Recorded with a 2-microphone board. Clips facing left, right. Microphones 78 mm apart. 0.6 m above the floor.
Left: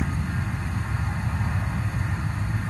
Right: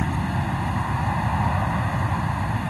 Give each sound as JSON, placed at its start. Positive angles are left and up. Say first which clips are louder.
{"t": 0.0, "sound": "an aircraft", "louder": "right 4 dB", "side_deg": -70}